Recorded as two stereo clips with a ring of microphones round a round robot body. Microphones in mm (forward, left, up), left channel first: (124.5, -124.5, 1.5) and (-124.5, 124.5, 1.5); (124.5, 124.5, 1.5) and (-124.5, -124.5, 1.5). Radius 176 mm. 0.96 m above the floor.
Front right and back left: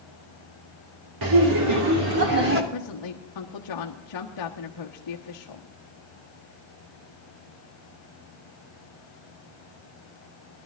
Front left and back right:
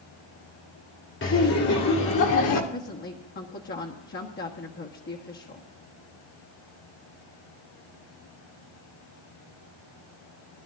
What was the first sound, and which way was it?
Laughter, 105° left.